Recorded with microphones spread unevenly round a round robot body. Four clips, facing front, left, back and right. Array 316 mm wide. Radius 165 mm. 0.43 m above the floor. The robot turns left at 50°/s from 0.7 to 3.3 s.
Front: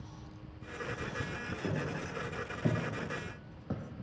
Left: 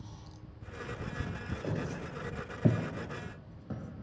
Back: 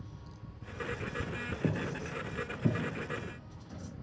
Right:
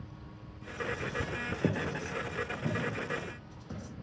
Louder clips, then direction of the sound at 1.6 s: Right 5 dB, back 2 dB; 125° right.